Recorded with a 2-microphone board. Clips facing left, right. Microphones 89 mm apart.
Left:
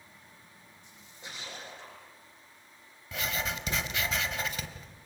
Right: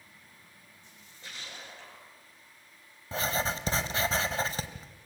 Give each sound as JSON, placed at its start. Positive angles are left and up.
{"t": 0.8, "sound": "a splash", "side_deg": 15, "distance_m": 8.5}
{"t": 3.1, "sound": "writing", "side_deg": -30, "distance_m": 1.7}